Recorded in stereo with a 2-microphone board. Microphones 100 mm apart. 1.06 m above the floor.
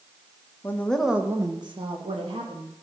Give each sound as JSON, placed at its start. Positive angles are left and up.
{"t": 0.6, "sound": "a woman speaking", "side_deg": 20, "distance_m": 1.4}